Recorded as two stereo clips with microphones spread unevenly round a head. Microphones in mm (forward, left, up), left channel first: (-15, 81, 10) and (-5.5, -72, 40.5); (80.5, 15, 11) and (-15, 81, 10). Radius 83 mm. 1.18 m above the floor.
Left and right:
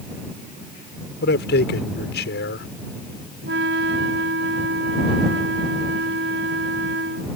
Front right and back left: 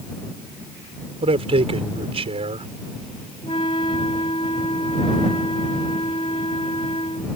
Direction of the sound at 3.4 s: 100° right.